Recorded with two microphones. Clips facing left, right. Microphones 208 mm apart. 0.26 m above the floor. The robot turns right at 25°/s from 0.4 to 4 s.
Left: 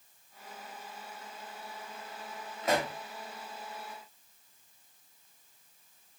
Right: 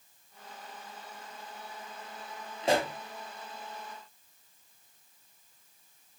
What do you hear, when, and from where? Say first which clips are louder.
2.6 s a pop: right 3 dB; 30° right (ahead or behind), 0.5 m